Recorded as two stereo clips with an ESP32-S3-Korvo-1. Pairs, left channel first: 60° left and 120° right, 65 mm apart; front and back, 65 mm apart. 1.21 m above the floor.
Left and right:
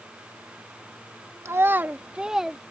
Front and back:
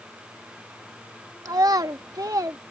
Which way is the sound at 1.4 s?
165° right.